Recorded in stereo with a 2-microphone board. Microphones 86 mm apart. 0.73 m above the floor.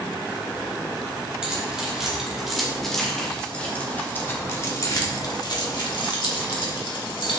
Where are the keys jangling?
10° right (ahead or behind), 2.5 m; by 7.4 s 75° left (ahead or behind), 1.9 m.